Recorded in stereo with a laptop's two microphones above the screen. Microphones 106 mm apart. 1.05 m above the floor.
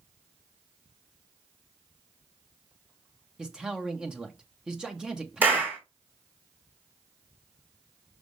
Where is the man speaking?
5° right (ahead or behind), 0.8 m.